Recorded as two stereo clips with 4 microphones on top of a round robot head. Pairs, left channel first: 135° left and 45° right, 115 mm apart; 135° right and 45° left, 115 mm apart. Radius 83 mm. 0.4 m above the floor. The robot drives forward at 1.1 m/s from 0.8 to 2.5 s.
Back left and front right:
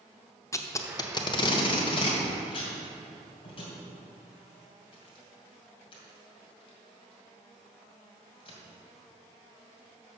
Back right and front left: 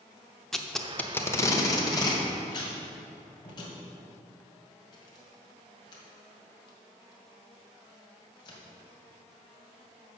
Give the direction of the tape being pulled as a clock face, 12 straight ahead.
7 o'clock.